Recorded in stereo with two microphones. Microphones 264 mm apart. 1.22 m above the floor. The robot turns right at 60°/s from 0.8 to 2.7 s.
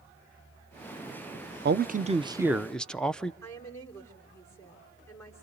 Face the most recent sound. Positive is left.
turn(degrees=10)  # may be behind; listen again after turning